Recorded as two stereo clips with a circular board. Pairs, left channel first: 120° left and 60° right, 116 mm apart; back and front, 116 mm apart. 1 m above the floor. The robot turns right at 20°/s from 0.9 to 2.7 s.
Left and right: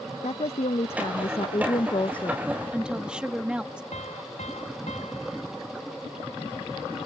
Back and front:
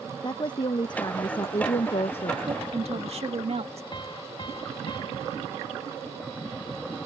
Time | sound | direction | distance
0.2 | a woman speaking | 135° left | ?
2.5 | a woman speaking | 15° left | ?
3.9 | a piano | 130° left | ?